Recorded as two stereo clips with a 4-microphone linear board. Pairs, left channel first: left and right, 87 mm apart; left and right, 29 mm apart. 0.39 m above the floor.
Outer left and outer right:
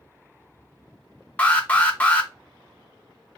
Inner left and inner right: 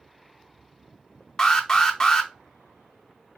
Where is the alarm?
15° left (ahead or behind), 0.8 m.